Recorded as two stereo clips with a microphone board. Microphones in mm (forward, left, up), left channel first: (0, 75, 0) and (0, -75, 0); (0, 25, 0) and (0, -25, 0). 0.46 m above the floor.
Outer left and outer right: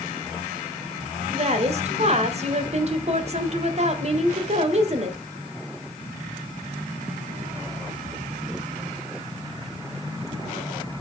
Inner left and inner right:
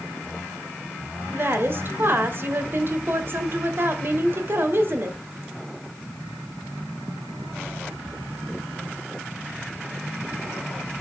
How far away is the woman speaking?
About 2.0 m.